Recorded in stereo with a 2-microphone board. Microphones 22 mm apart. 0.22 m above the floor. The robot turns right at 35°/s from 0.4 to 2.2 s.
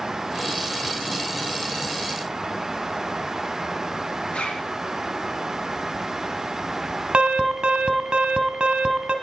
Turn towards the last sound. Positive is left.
turn(degrees=-50)  # may be behind; listen again after turning